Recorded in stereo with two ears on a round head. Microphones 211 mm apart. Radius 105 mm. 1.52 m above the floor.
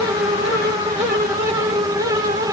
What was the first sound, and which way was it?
Only background noise.